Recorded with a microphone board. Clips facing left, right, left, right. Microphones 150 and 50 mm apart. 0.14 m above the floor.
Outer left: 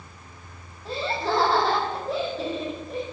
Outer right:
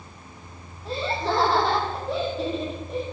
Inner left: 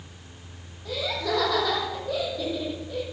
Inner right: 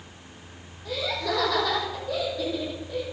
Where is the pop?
I don't hear a pop.